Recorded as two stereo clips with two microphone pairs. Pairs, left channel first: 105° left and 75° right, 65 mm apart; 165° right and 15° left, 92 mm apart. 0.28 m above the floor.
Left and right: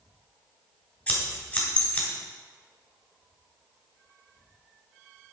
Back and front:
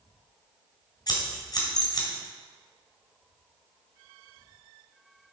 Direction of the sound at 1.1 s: 170° left.